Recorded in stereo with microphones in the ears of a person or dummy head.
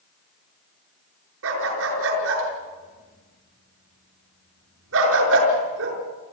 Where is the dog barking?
80° right, 6 m.